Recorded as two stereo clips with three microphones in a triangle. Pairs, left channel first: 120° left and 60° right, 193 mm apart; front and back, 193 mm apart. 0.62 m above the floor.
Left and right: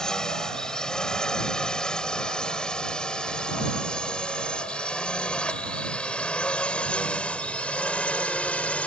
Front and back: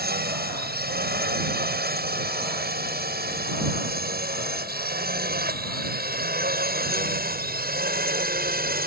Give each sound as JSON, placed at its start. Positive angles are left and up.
{"t": 0.0, "sound": "a drone", "azimuth_deg": -155}